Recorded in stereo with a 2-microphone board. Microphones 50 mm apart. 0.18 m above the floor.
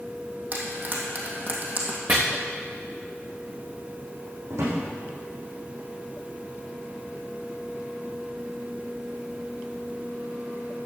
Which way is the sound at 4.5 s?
80° right.